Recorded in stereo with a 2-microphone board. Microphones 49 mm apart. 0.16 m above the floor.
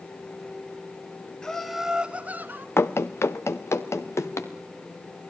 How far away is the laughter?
About 1.4 m.